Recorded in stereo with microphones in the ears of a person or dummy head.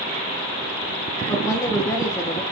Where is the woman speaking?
15° left (ahead or behind), 1.0 m.